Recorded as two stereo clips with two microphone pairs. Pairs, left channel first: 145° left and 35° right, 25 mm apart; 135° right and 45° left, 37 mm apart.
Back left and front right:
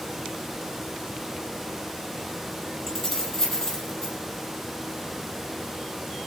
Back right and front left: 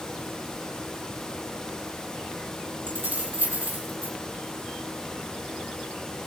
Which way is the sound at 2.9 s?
70° left.